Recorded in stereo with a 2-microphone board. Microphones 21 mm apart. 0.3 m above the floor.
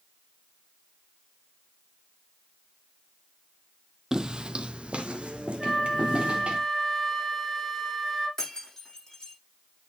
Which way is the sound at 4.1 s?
25° right (ahead or behind).